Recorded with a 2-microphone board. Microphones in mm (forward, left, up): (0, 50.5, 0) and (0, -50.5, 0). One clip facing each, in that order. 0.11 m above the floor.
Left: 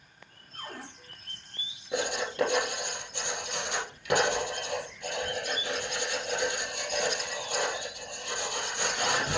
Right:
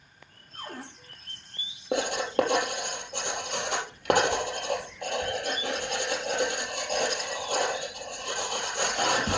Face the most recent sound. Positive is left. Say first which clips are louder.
# right 5 dB
turn(degrees=-60)  # may be behind; listen again after turning